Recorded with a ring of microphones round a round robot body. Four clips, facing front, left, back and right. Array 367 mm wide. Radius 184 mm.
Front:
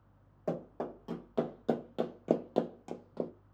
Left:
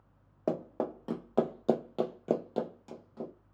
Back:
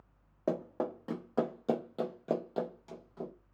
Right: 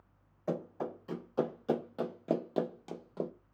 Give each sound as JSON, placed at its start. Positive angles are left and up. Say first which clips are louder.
{"t": 0.5, "sound": "running footsteps", "louder": "left 4 dB, back 3 dB", "azimuth_deg": 115, "distance_m": 1.0}